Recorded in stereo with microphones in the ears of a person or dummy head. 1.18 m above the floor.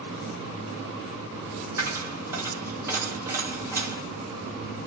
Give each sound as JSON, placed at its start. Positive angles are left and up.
{"t": 1.8, "sound": "a dropped coin", "side_deg": -10, "distance_m": 1.4}